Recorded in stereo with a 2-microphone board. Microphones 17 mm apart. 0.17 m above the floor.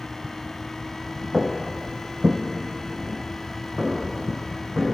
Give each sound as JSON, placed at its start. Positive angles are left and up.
{"t": 1.3, "sound": "footsteps", "side_deg": -55, "distance_m": 0.6}